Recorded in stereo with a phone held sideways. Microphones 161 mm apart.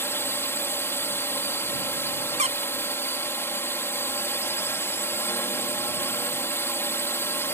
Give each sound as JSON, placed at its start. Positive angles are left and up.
{"t": 0.0, "sound": "a drone", "side_deg": 15}
{"t": 2.4, "sound": "a squeak", "side_deg": -45}